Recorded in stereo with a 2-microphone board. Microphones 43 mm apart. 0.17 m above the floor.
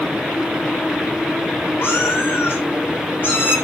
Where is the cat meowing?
50° left (ahead or behind), 6 m; by 3.5 s 45° left (ahead or behind), 7.5 m.